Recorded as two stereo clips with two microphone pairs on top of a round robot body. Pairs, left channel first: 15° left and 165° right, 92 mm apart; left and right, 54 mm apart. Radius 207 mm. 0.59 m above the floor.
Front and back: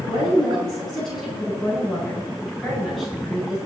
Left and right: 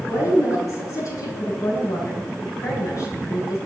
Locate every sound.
0.1 s a woman speaking: 100° left, 7 m